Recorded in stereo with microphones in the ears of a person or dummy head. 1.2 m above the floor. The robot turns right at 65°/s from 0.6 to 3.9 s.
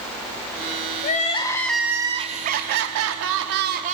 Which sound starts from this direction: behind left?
Crying, at 1.0 s.